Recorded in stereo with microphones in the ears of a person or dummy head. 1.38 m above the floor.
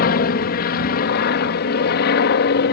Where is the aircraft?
50° left (ahead or behind); by 2.7 s 55° left (ahead or behind).